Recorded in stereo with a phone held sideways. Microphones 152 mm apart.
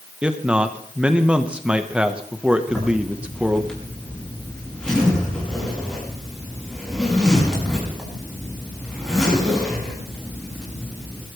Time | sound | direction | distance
0.2 | a man speaking | 5° right (ahead or behind) | 1.1 m
2.7 | a zipper | 5° left (ahead or behind) | 7 m